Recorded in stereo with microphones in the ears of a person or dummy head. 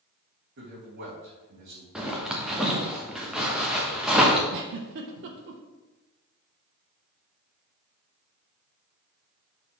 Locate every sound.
0.6 s a man speaking: 60° right (ahead or behind), 2.5 m
1.9 s a zipper: 5° right (ahead or behind), 1.0 m
4.5 s a giggle: 60° right (ahead or behind), 0.7 m